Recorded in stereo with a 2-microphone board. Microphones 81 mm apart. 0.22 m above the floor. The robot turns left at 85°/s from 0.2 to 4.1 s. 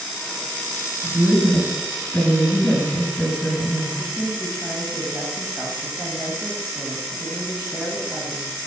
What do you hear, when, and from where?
1.0 s a woman speaking: 110° right, 1.9 m; by 3.9 s 10° left, 1.9 m
4.0 s a woman speaking: 15° right (ahead or behind), 1.1 m